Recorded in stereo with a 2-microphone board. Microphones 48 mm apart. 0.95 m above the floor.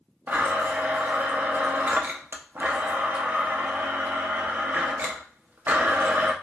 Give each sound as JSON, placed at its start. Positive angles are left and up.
{"t": 0.3, "sound": "a blender", "side_deg": -40, "distance_m": 0.5}